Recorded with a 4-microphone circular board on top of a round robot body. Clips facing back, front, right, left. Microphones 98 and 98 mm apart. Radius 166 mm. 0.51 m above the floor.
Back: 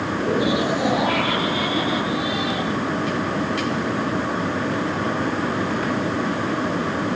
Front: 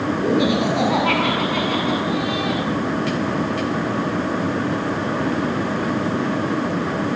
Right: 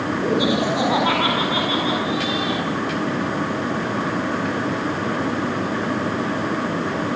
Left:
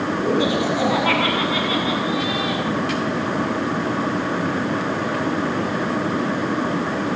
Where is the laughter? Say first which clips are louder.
Front 2 dB, even; 15° right, 6.5 m; by 2.6 s 30° right, 7 m.